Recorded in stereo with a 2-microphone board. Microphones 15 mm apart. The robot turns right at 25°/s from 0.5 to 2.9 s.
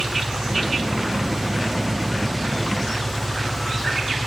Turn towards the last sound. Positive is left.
turn(degrees=10)